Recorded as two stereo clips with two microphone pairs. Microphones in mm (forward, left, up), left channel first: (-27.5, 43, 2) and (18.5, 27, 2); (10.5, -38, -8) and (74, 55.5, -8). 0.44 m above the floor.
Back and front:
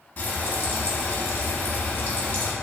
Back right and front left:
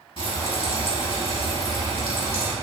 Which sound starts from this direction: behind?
Frying, at 0.2 s.